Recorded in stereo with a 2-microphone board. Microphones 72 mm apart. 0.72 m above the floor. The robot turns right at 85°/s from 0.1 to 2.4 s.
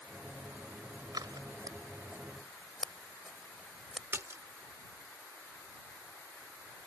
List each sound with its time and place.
1.1 s scissors: 65° right (ahead or behind); by 4.0 s 5° right (ahead or behind)
4.1 s a splash: 35° right (ahead or behind)